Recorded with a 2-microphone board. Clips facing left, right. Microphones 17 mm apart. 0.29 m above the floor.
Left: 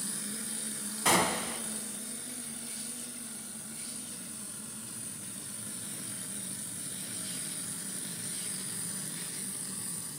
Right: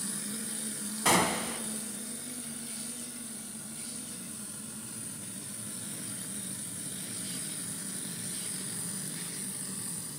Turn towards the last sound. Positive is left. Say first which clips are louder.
# right 1 dB
turn(degrees=-5)  # may be behind; listen again after turning